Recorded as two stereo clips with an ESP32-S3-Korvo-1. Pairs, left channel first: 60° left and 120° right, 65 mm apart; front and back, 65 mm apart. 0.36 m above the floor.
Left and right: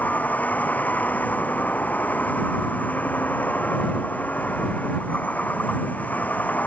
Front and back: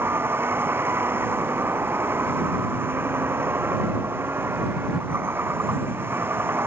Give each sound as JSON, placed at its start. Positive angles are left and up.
{"t": 0.0, "sound": "a vehicle", "azimuth_deg": 125}